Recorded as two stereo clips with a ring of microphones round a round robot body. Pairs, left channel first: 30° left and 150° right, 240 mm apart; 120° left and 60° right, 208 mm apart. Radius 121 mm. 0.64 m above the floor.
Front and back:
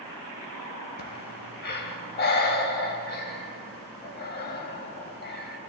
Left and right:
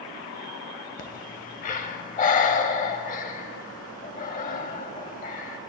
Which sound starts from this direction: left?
Breathing, at 1.0 s.